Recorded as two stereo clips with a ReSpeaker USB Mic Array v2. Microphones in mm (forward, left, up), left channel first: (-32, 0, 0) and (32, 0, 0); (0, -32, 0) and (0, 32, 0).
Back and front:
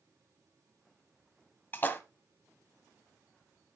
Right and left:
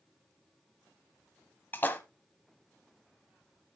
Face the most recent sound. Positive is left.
turn(degrees=-135)